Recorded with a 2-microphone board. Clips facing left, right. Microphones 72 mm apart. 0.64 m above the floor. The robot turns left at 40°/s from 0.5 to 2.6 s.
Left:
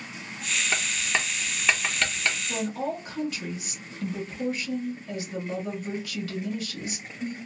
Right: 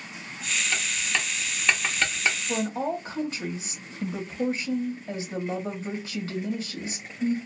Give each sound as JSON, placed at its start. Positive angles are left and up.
{"t": 0.7, "sound": "writing", "side_deg": 35, "distance_m": 0.6}
{"t": 2.5, "sound": "a woman speaking", "side_deg": -25, "distance_m": 0.9}